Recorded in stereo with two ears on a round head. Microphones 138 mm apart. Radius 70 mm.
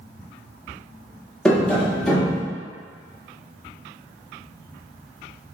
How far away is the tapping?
About 1.1 m.